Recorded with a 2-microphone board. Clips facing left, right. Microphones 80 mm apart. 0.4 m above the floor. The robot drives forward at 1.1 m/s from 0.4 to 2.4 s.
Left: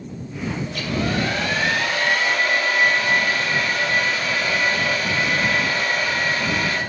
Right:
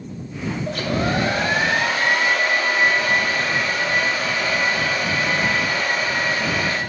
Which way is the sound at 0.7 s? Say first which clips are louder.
Right 4 dB; 45° right (ahead or behind).